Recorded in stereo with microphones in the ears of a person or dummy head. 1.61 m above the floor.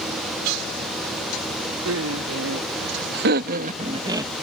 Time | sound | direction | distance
1.9 | laughter | 80° right | ?